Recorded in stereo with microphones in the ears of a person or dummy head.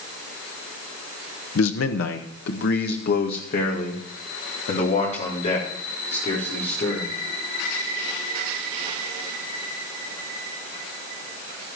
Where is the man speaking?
80° left, 1.1 m; by 7.1 s 30° left (ahead or behind), 5 m.